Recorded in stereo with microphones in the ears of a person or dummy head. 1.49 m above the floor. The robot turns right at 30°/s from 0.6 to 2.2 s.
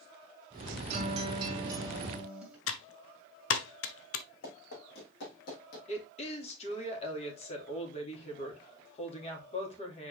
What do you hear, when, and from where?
0.9 s a guitar: 45° right, 1.9 m; by 2.6 s 5° right, 1.9 m
2.7 s typing on a keyboard: 75° left (ahead or behind), 0.9 m
4.4 s running footsteps: 75° left (ahead or behind), 5 m; by 5.8 s 60° left (ahead or behind), 3 m
5.9 s a woman speaking: 40° left (ahead or behind), 2.5 m